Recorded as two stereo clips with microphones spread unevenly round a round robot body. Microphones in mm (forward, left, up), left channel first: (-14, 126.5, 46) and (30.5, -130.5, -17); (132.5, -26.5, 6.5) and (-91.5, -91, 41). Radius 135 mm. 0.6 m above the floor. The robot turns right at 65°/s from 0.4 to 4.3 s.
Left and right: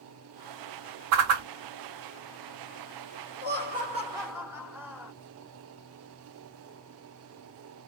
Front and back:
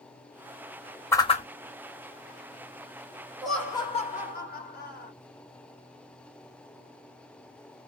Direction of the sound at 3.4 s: 70° right.